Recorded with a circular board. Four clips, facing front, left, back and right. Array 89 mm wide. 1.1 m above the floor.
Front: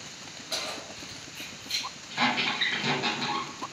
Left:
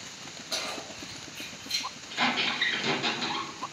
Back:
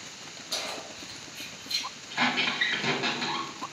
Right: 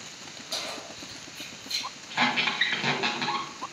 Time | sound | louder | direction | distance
0.5 | keys jangling | left 1 dB, even | 30° left | 2 m
2.1 | a squeak | right 2 dB, front 1 dB | 90° right | 1.1 m